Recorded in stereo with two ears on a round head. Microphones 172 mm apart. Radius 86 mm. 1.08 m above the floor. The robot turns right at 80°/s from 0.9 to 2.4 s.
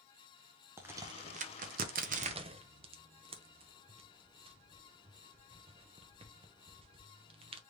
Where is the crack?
15° right (ahead or behind), 0.5 m; by 7.6 s 30° right (ahead or behind), 0.5 m.